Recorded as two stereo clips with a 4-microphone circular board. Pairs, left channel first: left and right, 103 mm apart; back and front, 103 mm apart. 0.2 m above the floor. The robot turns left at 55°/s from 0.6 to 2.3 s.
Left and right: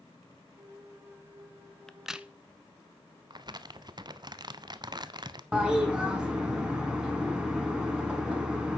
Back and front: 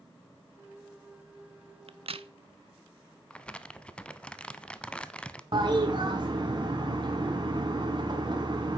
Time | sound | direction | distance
1.9 | a crack | 5° left | 0.5 m
3.3 | crumpling | 105° right | 0.6 m
5.5 | a toilet flushing | 10° right | 2 m